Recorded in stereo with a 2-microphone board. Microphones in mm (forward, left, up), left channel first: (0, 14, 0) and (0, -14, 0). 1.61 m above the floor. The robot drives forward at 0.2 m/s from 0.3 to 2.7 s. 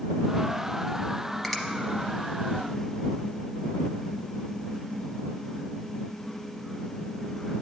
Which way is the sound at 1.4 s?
5° left (ahead or behind).